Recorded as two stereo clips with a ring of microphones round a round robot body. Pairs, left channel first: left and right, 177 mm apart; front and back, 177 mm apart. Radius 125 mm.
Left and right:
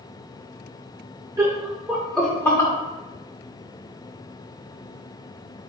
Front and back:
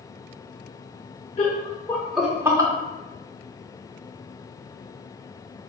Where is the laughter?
30° right, 0.9 m; by 2.7 s 145° left, 0.8 m.